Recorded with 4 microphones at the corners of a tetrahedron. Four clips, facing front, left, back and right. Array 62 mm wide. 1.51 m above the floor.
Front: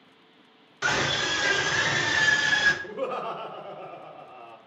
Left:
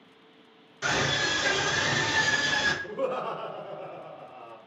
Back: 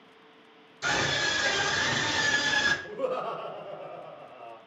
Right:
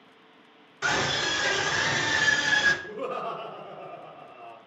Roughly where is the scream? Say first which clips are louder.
Even, front 2 dB; ahead.